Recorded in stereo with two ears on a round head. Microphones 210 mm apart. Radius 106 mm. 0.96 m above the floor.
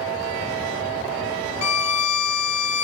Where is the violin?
80° left, 1.1 m.